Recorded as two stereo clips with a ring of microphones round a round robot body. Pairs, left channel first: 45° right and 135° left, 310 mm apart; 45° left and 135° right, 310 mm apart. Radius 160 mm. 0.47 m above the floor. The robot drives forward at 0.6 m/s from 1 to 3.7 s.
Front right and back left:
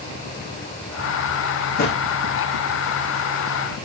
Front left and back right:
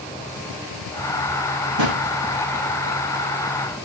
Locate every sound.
1.8 s a drawer: 105° right, 7.5 m